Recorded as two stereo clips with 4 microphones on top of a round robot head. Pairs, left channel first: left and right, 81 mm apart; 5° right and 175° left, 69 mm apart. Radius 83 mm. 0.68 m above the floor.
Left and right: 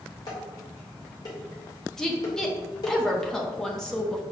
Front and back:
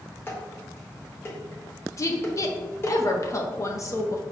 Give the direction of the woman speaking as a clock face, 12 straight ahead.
12 o'clock.